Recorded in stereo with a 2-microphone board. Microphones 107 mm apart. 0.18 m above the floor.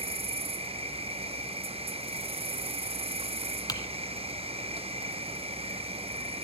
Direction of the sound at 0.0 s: 70° right (ahead or behind).